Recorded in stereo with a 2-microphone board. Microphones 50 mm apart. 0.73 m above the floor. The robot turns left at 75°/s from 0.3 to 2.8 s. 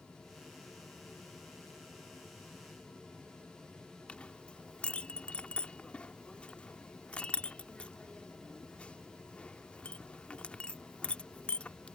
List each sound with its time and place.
4.1 s a clink: 25° left (ahead or behind)